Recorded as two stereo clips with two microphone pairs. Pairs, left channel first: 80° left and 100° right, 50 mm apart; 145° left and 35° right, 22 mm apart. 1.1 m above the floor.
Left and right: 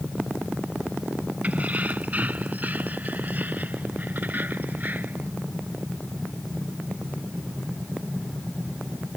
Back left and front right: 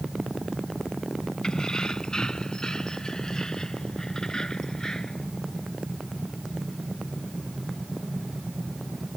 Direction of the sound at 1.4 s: 160° right.